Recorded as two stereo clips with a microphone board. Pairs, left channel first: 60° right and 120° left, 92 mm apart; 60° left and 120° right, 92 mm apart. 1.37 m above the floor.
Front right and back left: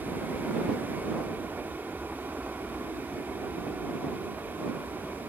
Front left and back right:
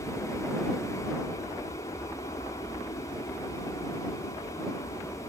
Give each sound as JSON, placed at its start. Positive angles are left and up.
{"t": 0.0, "sound": "an aircraft", "azimuth_deg": 50}